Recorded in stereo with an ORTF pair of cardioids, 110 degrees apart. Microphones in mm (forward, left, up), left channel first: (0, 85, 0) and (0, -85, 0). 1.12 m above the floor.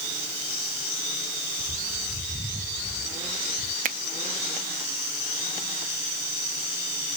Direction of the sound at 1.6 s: 10° right.